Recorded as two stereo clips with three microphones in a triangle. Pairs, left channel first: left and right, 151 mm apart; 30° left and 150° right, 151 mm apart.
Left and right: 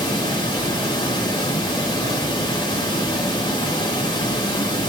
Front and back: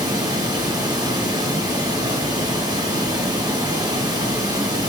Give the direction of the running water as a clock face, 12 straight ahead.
7 o'clock.